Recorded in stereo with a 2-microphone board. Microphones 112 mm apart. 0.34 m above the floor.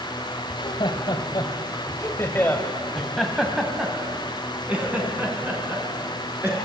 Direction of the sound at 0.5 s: 50° left (ahead or behind).